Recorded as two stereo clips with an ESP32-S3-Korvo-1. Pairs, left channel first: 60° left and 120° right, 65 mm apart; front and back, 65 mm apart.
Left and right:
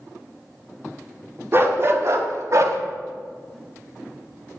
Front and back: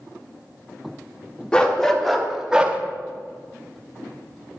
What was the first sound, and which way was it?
A dog barking, 75° right.